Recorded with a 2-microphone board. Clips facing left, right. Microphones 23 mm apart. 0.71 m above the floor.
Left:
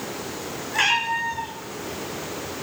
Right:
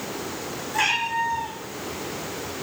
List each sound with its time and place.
0.7 s a cat meowing: 25° left (ahead or behind), 3 m